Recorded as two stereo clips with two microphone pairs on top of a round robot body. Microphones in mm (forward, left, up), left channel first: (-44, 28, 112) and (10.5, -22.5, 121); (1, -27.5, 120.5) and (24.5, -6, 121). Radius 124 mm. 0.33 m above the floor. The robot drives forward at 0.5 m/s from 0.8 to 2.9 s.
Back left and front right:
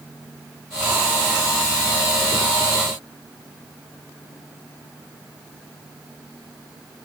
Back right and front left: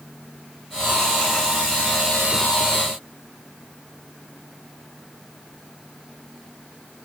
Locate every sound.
Only background noise.